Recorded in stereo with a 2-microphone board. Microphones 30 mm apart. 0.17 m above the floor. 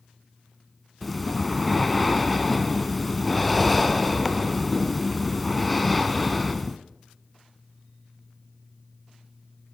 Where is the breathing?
Centre (ahead or behind), 0.9 m.